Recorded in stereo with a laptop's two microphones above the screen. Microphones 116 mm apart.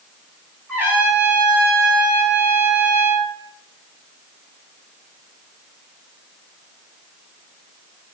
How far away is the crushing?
No crushing in this recording.